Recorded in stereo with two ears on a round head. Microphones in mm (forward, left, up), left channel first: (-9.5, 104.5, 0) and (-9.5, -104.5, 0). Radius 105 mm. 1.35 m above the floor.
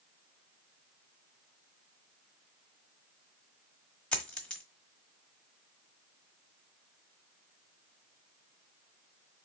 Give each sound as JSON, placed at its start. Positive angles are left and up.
{"t": 4.1, "sound": "a dropped coin", "side_deg": 5, "distance_m": 1.2}